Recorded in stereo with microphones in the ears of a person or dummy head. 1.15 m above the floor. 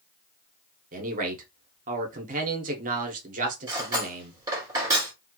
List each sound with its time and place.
0.9 s a man speaking: 35° right (ahead or behind), 0.7 m
3.7 s cutlery clinking: 15° right (ahead or behind), 1.4 m